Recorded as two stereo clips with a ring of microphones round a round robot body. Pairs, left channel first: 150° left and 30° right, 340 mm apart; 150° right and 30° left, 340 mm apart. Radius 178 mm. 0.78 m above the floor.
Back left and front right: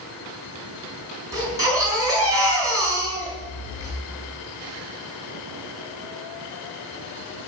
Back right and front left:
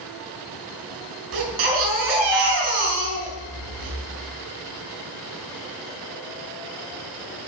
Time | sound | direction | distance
1.3 | a baby crying | 50° left | 5 m